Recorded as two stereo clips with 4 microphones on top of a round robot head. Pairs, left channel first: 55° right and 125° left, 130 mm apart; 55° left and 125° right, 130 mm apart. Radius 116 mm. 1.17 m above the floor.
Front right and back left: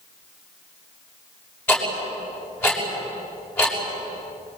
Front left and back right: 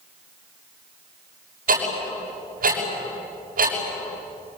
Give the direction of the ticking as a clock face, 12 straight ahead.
4 o'clock.